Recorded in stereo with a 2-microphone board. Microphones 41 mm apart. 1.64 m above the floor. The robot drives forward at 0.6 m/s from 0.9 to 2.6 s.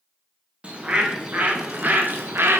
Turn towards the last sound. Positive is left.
turn(degrees=-70)  # may be behind; listen again after turning